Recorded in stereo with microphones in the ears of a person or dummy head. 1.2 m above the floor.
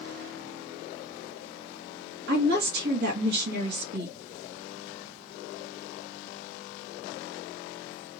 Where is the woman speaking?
65° right (ahead or behind), 1.7 m.